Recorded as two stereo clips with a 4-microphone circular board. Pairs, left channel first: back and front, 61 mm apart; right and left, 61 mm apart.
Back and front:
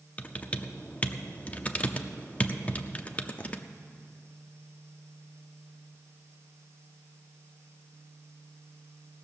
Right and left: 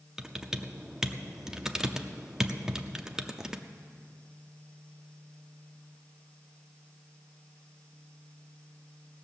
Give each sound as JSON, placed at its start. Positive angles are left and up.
{"t": 0.2, "sound": "typing on a keyboard", "azimuth_deg": 155, "distance_m": 0.6}